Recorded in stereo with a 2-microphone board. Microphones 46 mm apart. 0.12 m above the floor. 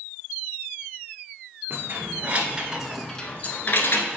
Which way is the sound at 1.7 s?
50° right (ahead or behind).